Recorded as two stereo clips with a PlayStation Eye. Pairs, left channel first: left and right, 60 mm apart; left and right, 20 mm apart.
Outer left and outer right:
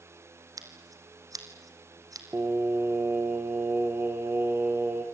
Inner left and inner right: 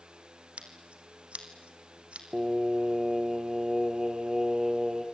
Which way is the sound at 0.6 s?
75° right (ahead or behind).